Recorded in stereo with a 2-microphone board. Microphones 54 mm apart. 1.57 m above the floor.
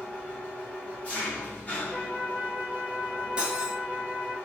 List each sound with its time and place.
0.0 s an engine running: 25° left (ahead or behind), 0.9 m
1.9 s a flute: 15° right (ahead or behind), 1.5 m
3.4 s cutlery clinking: 20° right (ahead or behind), 0.6 m